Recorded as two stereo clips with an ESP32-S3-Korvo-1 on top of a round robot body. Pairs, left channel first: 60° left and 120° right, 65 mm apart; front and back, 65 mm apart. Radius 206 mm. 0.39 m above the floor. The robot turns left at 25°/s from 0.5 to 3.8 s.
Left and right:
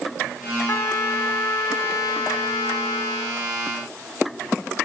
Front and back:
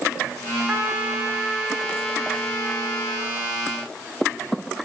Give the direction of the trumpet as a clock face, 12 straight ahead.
8 o'clock.